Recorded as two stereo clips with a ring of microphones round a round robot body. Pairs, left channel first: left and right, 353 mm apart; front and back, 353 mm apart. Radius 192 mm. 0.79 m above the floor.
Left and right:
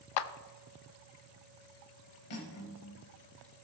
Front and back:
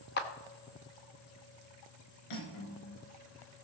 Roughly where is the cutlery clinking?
Ahead left.